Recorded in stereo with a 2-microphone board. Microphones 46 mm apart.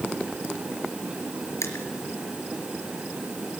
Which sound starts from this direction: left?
Crushing, at 1.6 s.